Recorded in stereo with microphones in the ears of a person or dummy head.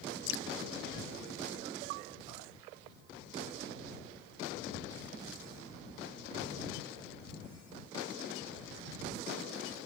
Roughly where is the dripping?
Left.